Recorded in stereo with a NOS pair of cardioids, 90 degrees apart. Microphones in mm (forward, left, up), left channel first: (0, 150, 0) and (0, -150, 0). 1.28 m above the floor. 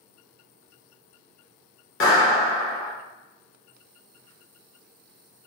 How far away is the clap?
About 1.0 m.